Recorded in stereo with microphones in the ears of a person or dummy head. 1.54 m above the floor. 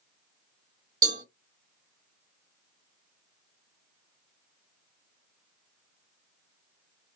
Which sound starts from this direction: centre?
A cowbell, at 1.0 s.